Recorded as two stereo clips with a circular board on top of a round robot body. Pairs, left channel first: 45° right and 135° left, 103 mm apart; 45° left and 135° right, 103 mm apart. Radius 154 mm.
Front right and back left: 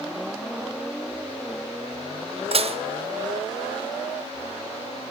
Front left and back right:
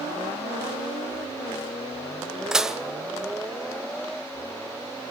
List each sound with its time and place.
2.5 s dishes clattering: 140° left, 1.7 m